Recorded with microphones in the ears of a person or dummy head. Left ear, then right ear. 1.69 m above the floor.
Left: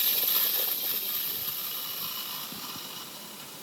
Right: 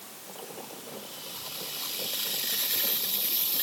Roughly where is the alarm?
No alarm in this recording.